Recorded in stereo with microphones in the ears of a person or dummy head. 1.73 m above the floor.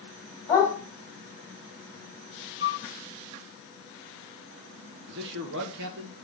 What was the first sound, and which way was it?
A dog barking, 20° left (ahead or behind).